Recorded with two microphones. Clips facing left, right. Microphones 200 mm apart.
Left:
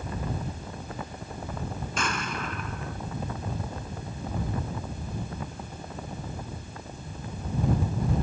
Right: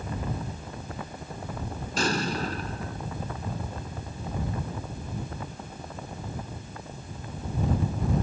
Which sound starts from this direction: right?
An explosion, at 2.0 s.